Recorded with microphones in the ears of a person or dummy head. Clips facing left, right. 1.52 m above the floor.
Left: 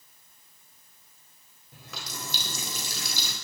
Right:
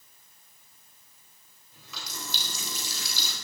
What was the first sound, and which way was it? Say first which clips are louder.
A running tap: left 2 dB; 55° left (ahead or behind).